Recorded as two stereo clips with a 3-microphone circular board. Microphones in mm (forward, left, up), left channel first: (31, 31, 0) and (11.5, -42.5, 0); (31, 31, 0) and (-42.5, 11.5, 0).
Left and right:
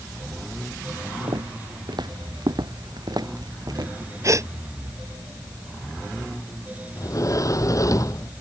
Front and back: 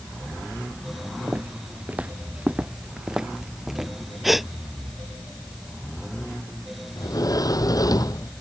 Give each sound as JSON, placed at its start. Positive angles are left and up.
{"t": 1.3, "sound": "footsteps", "azimuth_deg": -100}
{"t": 4.2, "sound": "a gasp", "azimuth_deg": -80}
{"t": 7.0, "sound": "a sliding door", "azimuth_deg": 40}